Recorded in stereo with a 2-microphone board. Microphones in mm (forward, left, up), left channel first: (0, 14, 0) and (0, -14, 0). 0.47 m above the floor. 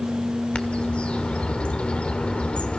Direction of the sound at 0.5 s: 50° left (ahead or behind).